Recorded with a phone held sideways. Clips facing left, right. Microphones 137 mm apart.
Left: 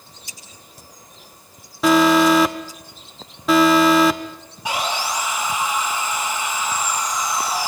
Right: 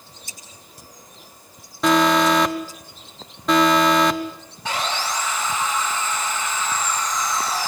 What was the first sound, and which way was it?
Scissors, 45° right (ahead or behind).